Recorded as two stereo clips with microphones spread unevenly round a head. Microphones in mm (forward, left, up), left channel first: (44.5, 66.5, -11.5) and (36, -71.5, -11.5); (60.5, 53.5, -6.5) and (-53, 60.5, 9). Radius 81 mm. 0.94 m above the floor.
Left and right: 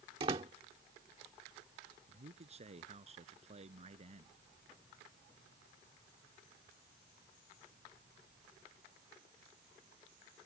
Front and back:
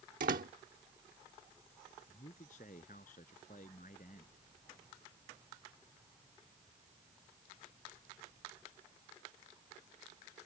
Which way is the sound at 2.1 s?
50° right.